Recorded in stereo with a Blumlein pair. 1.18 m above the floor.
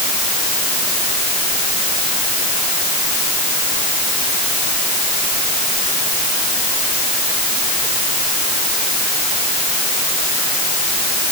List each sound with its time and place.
Only background noise.